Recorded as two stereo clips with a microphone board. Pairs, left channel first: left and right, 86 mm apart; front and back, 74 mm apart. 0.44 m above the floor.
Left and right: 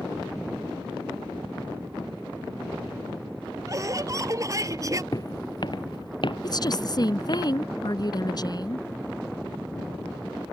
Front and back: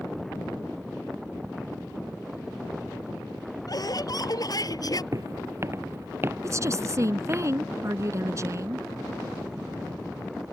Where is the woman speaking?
130° left.